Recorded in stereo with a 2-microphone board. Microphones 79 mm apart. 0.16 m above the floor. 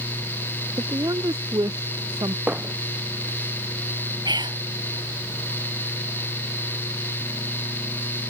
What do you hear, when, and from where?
0.8 s a woman speaking: 50° right (ahead or behind); by 2.4 s 60° right (ahead or behind)
2.5 s hammering: 15° right (ahead or behind)
4.2 s whispering: 65° right (ahead or behind)